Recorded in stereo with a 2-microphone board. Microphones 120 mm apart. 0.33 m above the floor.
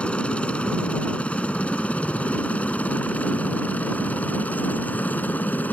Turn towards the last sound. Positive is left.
turn(degrees=15)  # may be behind; listen again after turning